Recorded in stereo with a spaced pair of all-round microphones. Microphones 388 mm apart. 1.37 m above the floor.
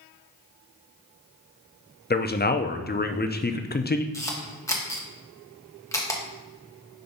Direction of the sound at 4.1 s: 10° left (ahead or behind).